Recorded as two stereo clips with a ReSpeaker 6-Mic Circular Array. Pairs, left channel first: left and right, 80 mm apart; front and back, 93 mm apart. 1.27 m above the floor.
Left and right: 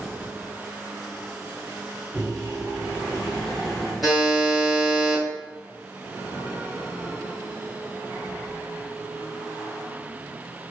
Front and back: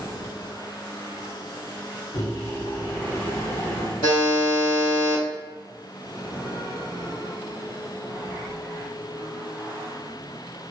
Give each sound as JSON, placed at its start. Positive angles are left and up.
{"t": 2.1, "sound": "a microwave", "azimuth_deg": 0, "distance_m": 1.6}
{"t": 4.0, "sound": "a buzzer", "azimuth_deg": -5, "distance_m": 1.6}